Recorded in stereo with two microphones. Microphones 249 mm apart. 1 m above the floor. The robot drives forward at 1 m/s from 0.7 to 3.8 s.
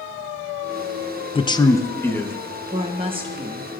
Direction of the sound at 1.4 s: 20° left (ahead or behind).